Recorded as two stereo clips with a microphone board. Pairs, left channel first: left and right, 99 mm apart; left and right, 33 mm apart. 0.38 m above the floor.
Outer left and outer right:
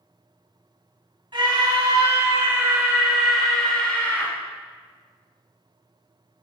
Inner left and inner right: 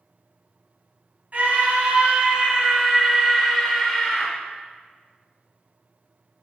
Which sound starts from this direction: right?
A scream, at 1.3 s.